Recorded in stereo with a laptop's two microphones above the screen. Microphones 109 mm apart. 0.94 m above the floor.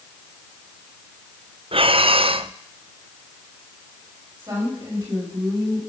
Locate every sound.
1.7 s breathing: 55° right (ahead or behind), 0.5 m
4.4 s a woman speaking: 25° right (ahead or behind), 6 m